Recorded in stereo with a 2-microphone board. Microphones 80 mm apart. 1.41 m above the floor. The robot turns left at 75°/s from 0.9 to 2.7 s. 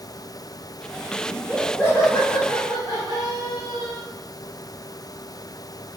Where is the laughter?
150° right, 5.5 m; by 4.0 s 100° left, 5.5 m.